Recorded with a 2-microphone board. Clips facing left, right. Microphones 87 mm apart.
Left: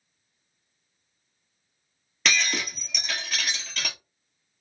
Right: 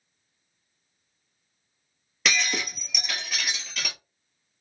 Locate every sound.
2.2 s breaking glass: 5° right (ahead or behind), 1.3 m